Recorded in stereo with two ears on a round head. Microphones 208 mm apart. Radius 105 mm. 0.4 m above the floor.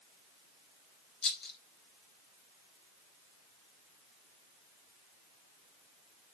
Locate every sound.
1.2 s a rattle: 40° left (ahead or behind), 1.4 m